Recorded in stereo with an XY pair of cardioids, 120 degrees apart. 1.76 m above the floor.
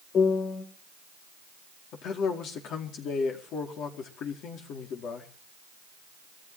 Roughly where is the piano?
Ahead left.